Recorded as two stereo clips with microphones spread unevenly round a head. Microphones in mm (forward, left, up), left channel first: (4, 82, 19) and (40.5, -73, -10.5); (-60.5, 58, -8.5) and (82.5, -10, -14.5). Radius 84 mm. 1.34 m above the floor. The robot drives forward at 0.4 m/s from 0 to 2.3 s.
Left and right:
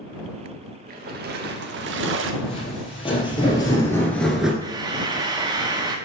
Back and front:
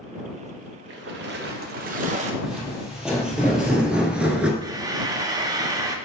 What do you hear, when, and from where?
0.9 s a splash: 40° right, 1.0 m; by 2.3 s 75° right, 0.7 m
2.4 s footsteps: 60° left, 3 m; by 4.5 s 40° left, 1.3 m
4.6 s frying: 30° right, 0.8 m